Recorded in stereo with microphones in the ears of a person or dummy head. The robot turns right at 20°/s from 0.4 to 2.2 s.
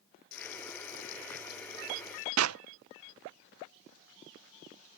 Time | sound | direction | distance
0.3 | frying | 105° left | ?
2.4 | a clap | 90° right | ?